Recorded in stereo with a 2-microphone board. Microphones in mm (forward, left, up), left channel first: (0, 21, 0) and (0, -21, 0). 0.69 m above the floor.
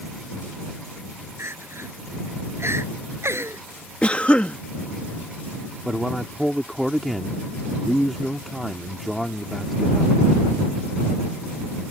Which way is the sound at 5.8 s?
5° right (ahead or behind).